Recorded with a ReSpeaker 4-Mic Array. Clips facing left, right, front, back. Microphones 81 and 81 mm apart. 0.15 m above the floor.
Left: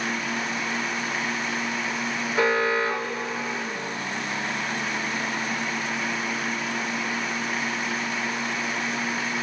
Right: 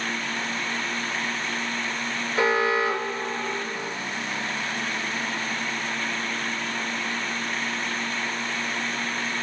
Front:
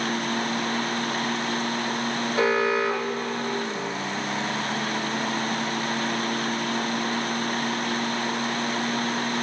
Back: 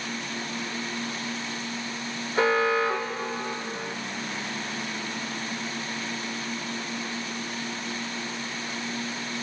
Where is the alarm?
145° left, 2.5 m.